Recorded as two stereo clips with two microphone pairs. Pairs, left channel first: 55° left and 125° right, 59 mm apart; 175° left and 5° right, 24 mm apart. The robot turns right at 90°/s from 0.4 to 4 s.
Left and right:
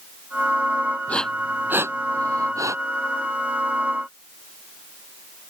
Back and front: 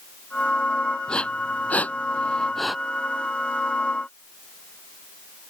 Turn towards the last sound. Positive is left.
turn(degrees=25)